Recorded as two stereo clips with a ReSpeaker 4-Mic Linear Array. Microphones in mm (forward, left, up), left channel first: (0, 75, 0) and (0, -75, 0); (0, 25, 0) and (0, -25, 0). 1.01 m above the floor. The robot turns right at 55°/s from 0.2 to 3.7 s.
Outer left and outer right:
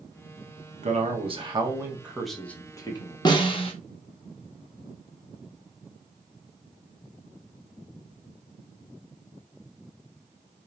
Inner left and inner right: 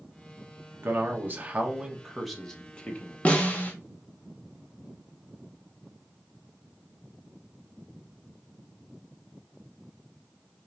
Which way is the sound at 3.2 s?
30° left (ahead or behind).